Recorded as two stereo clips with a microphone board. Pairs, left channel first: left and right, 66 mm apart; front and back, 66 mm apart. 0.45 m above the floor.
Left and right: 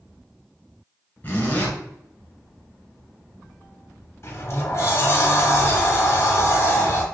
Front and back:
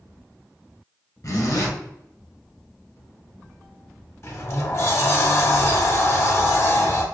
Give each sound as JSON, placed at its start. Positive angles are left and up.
{"t": 1.2, "sound": "a zipper", "azimuth_deg": 30, "distance_m": 1.3}
{"t": 4.2, "sound": "a sliding door", "azimuth_deg": 40, "distance_m": 0.6}